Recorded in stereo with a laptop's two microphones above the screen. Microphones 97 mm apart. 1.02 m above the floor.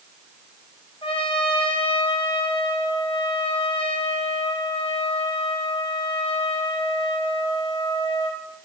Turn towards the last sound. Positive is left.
turn(degrees=65)  # may be behind; listen again after turning